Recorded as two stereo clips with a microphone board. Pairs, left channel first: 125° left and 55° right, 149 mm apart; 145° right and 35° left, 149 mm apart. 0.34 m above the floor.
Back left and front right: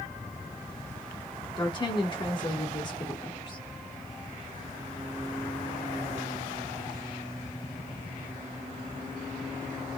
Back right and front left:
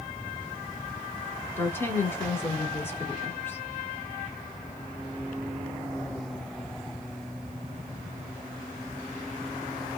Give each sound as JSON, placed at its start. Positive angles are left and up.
{"t": 1.6, "sound": "a woman speaking", "azimuth_deg": 150, "distance_m": 1.5}